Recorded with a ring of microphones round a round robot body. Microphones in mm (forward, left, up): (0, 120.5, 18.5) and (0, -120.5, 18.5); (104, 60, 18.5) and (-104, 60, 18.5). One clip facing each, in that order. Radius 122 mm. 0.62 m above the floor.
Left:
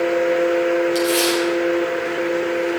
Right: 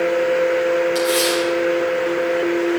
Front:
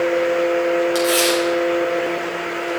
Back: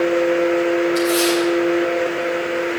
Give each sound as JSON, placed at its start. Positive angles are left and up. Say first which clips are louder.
{"t": 0.9, "sound": "tearing paper", "louder": "even, back 1 dB", "azimuth_deg": 10, "distance_m": 6.0}